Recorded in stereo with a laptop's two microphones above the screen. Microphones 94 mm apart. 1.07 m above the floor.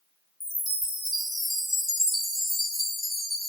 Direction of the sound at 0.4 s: Centre (ahead or behind).